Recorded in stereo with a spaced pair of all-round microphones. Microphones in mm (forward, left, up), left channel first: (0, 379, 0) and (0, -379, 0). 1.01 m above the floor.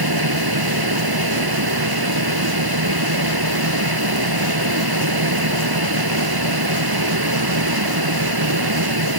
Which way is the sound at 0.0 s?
30° right (ahead or behind).